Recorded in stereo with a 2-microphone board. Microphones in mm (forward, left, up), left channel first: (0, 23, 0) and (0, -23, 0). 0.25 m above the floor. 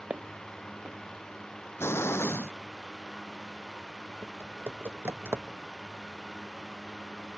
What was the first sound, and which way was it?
Footsteps, 40° right (ahead or behind).